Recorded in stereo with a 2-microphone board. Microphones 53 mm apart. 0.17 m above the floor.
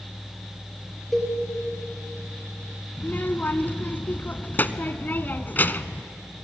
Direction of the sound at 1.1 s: 5° right (ahead or behind).